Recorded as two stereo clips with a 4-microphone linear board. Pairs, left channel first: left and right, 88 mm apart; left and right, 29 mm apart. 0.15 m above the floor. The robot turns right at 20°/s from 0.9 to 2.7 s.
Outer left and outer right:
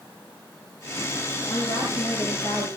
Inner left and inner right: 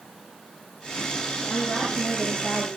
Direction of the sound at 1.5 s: 65° right (ahead or behind).